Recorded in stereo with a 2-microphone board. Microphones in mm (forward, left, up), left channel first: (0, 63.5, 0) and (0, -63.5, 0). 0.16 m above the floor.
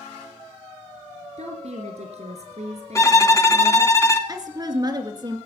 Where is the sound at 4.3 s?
30° right (ahead or behind), 1.9 m.